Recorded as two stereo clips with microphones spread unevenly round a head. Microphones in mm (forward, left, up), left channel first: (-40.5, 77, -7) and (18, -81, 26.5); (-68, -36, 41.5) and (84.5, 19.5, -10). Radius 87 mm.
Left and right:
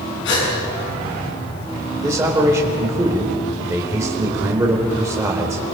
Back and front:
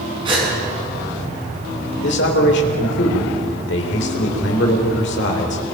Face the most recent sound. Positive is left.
turn(degrees=-145)